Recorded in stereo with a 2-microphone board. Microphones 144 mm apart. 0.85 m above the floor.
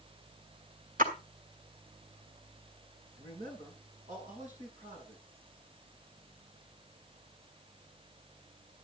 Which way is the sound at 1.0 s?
80° right.